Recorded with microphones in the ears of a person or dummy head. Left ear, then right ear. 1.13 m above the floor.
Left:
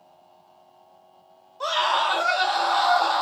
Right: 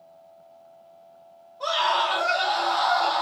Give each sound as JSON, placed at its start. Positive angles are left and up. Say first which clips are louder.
{"t": 1.6, "sound": "a scream", "louder": "left 1 dB", "side_deg": 65, "distance_m": 2.5}